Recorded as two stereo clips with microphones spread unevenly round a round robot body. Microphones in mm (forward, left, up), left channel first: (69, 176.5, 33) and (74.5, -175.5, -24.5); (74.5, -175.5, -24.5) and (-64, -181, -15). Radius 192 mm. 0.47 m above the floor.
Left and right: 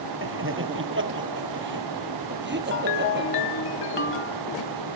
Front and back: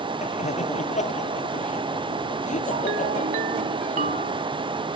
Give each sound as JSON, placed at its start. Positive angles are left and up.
{"t": 0.2, "sound": "laughter", "azimuth_deg": -35}
{"t": 2.7, "sound": "a ringtone", "azimuth_deg": 155}